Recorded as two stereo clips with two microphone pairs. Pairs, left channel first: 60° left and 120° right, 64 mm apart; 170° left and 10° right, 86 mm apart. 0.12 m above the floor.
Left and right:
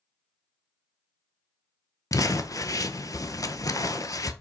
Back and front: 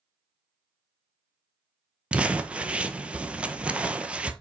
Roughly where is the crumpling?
Ahead left.